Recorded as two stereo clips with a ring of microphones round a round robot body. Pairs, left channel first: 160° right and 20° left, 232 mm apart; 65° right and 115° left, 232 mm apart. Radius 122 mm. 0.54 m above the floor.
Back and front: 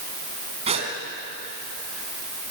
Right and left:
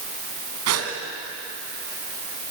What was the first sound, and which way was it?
A gasp, 90° left.